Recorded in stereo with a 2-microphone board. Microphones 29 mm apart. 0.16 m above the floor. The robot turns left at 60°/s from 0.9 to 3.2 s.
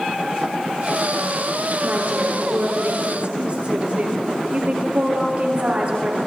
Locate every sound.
1.8 s a woman speaking: 55° right, 3 m; by 6.2 s 140° right, 3 m